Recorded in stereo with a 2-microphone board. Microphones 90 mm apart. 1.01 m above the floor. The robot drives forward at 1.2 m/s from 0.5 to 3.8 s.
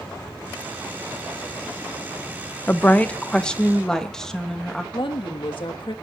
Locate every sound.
2.7 s a woman speaking: 20° left (ahead or behind), 0.5 m; by 4.8 s 5° left (ahead or behind), 1.5 m
4.9 s a woman speaking: 70° left (ahead or behind), 1.6 m